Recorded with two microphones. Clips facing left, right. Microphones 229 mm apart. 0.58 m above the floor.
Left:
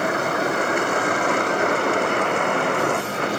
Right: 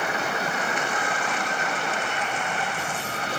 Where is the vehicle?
55° left (ahead or behind); by 3.4 s 65° left (ahead or behind).